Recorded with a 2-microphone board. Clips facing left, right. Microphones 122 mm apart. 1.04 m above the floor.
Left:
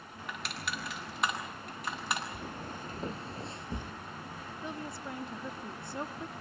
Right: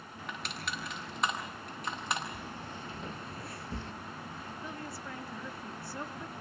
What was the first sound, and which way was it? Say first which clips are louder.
Crushing: left 1 dB; centre (ahead or behind).